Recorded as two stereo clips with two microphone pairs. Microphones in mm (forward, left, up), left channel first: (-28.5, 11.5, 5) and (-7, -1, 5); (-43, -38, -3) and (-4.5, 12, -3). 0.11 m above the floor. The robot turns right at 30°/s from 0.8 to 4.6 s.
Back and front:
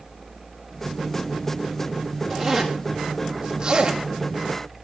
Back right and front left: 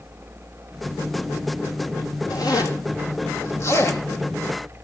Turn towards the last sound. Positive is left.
turn(degrees=-60)